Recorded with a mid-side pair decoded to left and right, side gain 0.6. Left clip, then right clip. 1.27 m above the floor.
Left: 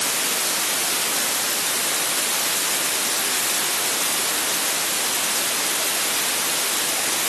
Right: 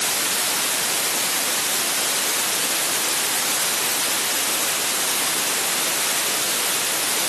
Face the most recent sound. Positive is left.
No sound to turn to.